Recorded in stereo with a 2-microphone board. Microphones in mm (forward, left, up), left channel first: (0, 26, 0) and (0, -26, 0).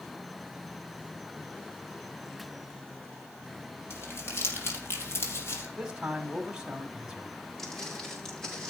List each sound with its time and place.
3.9 s crumpling: 50° left (ahead or behind), 4 m
5.8 s a man speaking: 15° right (ahead or behind), 2 m
7.6 s footsteps: 10° left (ahead or behind), 5.5 m; by 8.7 s 15° left (ahead or behind), 5 m